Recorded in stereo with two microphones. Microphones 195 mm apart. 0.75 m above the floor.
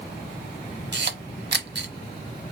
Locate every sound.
0.9 s a camera shutter: 70° right (ahead or behind), 1.2 m